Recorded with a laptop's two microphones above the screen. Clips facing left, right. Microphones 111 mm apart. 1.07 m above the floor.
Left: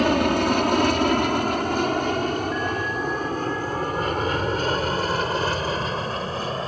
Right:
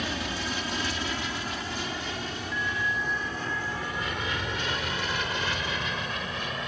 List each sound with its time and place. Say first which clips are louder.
0.0 s an aircraft: left 14 dB; 60° left (ahead or behind); by 6.7 s 35° left (ahead or behind)
2.5 s a bell: left 6 dB; 80° right